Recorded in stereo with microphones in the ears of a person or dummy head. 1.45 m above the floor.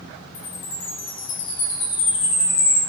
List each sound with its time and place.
0.3 s a chime: 35° left (ahead or behind), 1.5 m